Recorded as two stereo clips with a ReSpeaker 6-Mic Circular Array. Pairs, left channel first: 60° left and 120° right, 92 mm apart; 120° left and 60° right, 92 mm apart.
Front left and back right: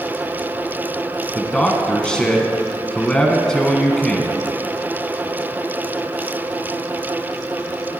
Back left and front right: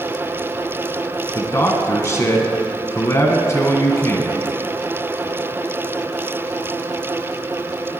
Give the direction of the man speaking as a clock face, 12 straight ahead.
8 o'clock.